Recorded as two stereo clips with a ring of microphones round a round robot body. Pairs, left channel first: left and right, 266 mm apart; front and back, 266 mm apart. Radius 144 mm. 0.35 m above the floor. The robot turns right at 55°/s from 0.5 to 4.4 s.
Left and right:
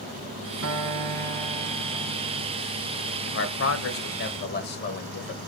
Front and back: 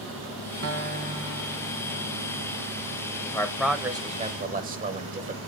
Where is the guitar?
135° right, 0.6 m; by 2.5 s 35° right, 0.6 m.